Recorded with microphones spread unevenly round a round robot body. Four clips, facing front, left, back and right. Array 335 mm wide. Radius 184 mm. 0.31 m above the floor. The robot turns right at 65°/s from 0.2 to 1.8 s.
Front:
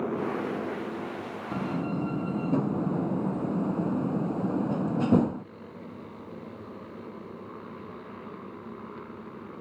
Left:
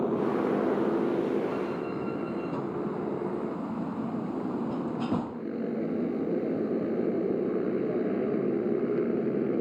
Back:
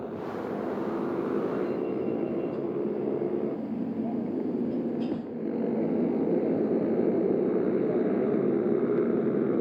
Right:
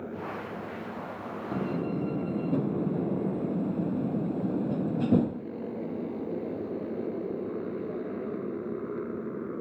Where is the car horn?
No car horn in this recording.